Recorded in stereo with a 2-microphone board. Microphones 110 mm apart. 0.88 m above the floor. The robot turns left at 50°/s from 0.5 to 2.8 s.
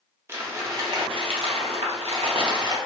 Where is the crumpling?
25° right, 0.6 m; by 2.8 s 135° right, 0.6 m.